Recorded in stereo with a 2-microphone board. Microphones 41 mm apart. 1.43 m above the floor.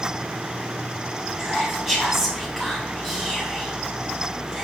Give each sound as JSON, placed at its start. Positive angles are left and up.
{"t": 1.4, "sound": "whispering", "side_deg": -5, "distance_m": 0.5}